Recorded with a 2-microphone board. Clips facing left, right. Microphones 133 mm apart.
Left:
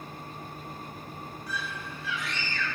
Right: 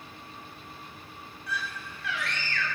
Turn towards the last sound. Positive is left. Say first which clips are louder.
# right 2 dB
turn(degrees=-65)  # may be behind; listen again after turning